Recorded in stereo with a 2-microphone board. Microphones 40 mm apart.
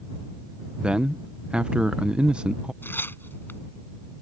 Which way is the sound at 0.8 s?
25° right (ahead or behind).